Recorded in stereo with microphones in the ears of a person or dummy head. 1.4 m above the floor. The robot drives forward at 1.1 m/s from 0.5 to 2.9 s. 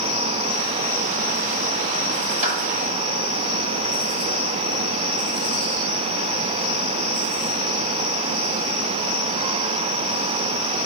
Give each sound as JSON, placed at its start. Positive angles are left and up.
{"t": 2.4, "sound": "a clap", "side_deg": -40, "distance_m": 6.5}